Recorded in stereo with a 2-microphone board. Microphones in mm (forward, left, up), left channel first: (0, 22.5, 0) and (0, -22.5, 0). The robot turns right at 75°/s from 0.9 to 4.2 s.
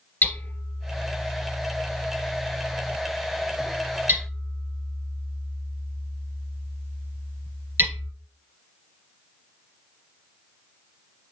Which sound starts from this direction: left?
Hammering, at 0.2 s.